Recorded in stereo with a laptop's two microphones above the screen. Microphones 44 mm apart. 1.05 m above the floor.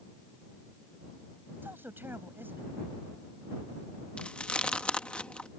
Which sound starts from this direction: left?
Chewing, at 4.2 s.